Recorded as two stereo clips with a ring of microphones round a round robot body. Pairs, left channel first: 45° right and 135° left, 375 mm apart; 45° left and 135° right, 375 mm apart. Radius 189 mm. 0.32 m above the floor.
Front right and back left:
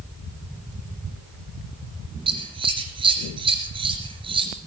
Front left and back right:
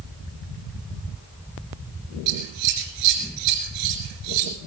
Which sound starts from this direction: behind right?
Scissors, at 2.3 s.